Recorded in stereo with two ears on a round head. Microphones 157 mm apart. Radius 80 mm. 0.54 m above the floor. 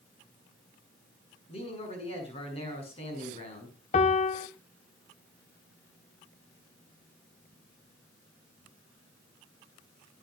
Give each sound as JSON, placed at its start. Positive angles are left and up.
{"t": 1.5, "sound": "a man speaking", "side_deg": 35, "distance_m": 7.5}
{"t": 3.9, "sound": "a piano", "side_deg": 40, "distance_m": 1.0}